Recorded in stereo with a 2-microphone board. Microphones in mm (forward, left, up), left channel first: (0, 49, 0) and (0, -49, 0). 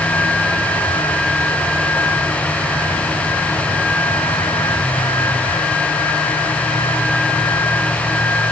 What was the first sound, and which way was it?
Only background noise.